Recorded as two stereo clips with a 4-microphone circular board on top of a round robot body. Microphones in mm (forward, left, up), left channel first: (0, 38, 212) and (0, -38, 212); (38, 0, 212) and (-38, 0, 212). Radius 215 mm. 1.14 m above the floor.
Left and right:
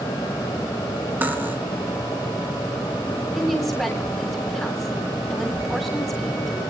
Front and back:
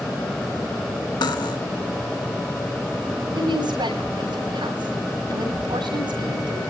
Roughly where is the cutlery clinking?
Ahead right.